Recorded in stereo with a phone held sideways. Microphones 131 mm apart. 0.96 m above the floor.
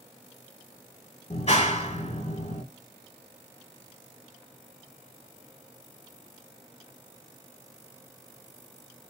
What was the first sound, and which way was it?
A clap, 60° left (ahead or behind).